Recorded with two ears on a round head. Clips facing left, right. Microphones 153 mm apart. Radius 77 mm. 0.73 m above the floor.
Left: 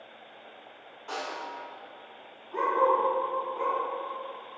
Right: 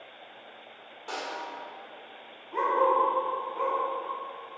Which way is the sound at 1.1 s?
40° right (ahead or behind).